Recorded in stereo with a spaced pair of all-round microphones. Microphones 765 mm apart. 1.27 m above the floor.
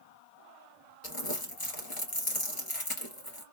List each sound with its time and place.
1.0 s crumpling: 40° left (ahead or behind), 1.7 m